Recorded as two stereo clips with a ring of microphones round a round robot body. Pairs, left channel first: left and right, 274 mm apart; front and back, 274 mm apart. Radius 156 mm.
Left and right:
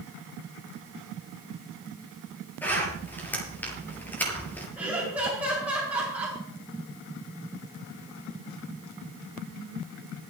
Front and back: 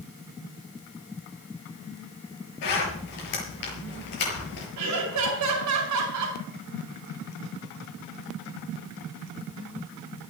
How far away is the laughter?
About 2.5 m.